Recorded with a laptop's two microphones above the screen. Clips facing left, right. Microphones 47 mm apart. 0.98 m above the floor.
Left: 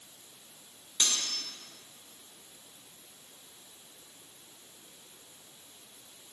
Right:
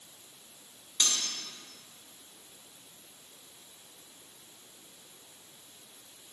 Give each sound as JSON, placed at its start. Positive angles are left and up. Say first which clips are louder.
{"t": 1.0, "sound": "cutlery clinking", "louder": "even", "side_deg": 20, "distance_m": 1.5}